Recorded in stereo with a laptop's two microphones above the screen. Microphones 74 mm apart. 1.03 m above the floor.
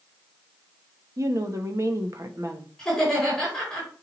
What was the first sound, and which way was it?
A woman speaking, 45° right (ahead or behind).